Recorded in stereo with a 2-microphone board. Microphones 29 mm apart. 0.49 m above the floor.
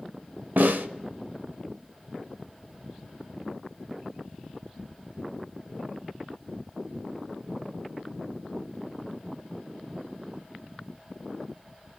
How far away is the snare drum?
About 0.7 m.